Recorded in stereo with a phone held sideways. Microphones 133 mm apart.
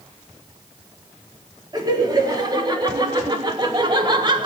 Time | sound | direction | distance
1.7 | laughter | 30° right (ahead or behind) | 4 m